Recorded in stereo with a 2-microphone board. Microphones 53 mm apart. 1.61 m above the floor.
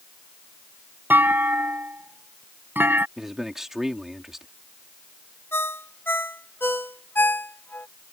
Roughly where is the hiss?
No hiss in this recording.